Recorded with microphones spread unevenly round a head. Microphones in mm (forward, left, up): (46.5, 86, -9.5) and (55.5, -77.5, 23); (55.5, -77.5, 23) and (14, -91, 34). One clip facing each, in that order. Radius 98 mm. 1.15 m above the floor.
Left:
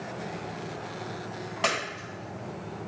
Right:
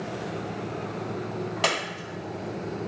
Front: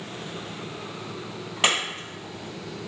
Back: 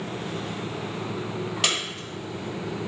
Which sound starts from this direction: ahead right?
A clap, at 1.6 s.